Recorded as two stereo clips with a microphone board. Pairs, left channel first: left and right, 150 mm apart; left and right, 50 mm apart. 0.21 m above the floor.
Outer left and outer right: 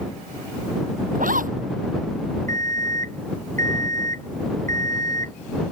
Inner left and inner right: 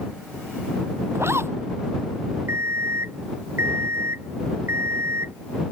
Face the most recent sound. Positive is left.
turn(degrees=-70)  # may be behind; listen again after turning